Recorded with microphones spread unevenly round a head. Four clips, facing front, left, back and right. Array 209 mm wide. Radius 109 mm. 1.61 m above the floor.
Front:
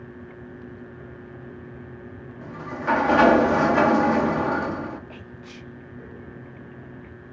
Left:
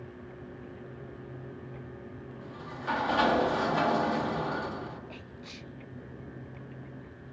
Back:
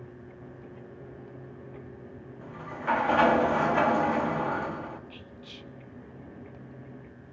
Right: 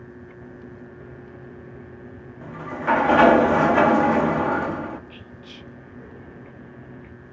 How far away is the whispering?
About 0.7 m.